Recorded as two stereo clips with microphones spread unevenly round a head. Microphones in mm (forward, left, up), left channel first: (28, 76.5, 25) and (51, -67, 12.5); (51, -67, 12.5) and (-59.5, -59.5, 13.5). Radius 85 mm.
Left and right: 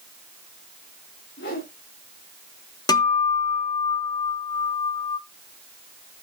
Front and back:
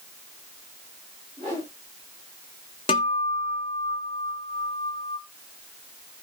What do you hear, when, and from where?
1.4 s a whoosh: 110° left, 8.5 m
2.9 s a guitar: 45° left, 1.3 m